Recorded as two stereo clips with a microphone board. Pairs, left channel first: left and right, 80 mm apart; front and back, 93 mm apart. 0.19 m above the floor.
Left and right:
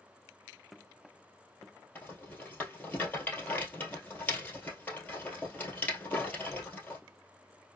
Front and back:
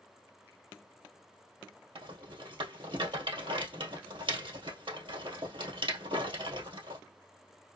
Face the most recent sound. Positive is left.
turn(degrees=155)